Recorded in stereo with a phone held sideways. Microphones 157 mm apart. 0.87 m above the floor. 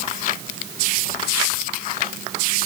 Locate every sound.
Only background noise.